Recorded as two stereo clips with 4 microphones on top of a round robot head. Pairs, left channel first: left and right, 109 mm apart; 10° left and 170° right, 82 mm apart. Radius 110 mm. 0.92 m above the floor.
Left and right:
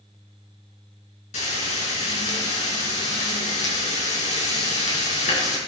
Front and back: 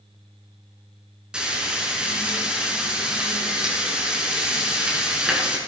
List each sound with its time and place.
1.3 s frying: 110° left, 5.5 m